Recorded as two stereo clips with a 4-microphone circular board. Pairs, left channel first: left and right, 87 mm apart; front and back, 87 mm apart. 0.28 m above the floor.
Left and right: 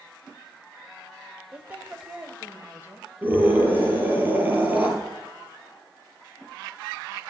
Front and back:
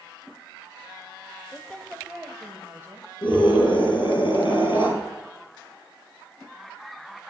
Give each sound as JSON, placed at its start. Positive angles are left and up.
{"t": 1.5, "sound": "a woman speaking", "azimuth_deg": -35, "distance_m": 1.4}
{"t": 3.2, "sound": "a scream", "azimuth_deg": -20, "distance_m": 6.0}